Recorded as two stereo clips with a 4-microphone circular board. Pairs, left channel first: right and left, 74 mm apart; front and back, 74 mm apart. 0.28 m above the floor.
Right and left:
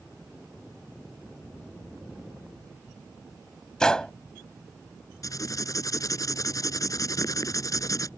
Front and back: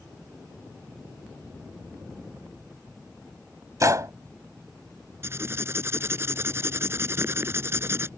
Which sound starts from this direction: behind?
A gunshot, at 3.8 s.